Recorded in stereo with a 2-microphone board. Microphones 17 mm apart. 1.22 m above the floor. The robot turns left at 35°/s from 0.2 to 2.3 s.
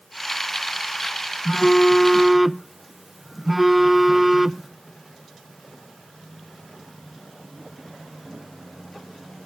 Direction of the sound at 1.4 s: 25° left (ahead or behind).